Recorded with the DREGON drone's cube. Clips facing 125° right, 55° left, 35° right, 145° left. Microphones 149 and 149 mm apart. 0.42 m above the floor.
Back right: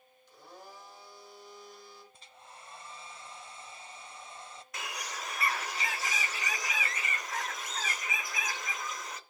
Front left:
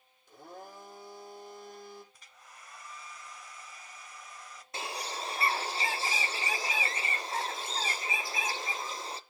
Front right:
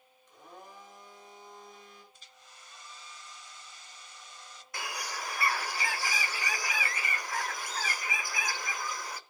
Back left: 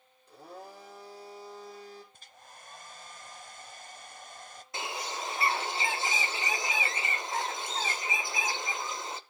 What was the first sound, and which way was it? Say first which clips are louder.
A blender: front left 4 dB, back left 5 dB; 90° left.